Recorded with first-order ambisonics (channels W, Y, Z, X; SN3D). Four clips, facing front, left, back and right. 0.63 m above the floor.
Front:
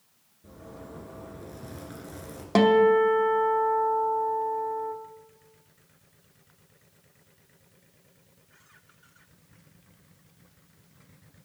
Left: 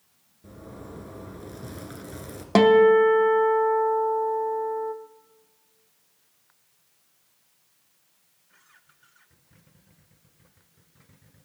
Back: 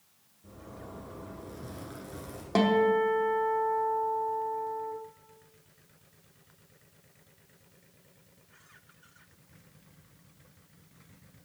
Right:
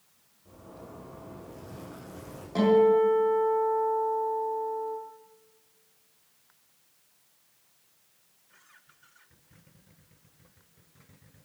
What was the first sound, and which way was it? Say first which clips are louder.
A zipper: left 5 dB, front 2 dB; 80° left.